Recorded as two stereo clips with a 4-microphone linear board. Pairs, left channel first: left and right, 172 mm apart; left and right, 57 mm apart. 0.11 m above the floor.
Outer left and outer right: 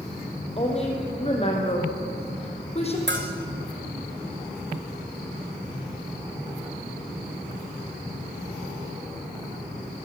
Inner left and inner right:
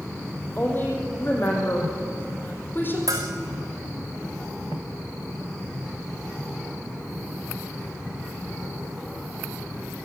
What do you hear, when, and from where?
0.6 s a woman speaking: 35° left (ahead or behind), 5.5 m
3.1 s a bell: 75° right (ahead or behind), 3 m